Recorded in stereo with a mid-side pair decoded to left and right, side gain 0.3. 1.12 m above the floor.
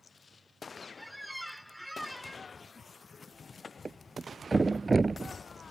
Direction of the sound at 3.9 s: 35° right.